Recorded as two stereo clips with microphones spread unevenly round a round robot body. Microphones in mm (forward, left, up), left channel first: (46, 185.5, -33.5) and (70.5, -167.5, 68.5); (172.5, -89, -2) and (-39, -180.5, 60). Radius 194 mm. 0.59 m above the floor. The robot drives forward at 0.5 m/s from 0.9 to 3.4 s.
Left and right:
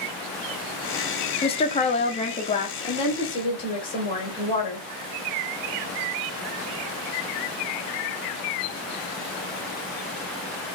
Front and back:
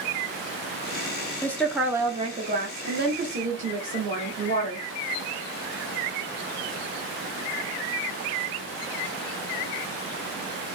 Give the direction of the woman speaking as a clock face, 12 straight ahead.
10 o'clock.